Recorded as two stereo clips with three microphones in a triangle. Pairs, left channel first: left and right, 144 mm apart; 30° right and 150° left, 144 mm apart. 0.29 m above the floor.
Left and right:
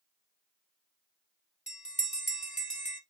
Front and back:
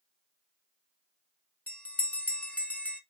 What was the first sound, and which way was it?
A bell, 45° left.